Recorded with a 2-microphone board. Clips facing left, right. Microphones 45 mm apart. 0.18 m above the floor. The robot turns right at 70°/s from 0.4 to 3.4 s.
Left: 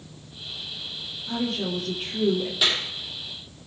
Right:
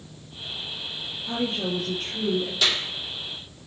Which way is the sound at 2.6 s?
15° left (ahead or behind).